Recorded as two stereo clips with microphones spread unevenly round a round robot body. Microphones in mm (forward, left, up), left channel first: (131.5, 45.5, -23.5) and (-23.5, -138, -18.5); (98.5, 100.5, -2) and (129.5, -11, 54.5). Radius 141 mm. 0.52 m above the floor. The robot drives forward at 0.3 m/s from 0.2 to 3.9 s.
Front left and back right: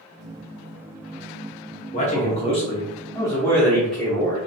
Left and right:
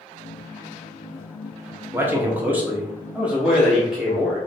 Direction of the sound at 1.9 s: 35° left.